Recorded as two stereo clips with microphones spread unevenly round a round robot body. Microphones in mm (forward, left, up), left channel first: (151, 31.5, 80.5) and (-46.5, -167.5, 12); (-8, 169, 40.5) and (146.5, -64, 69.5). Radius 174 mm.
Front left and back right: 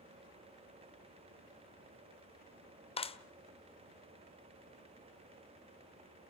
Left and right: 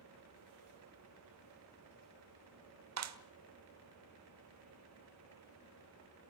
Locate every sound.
3.0 s a clap: 30° right, 1.4 m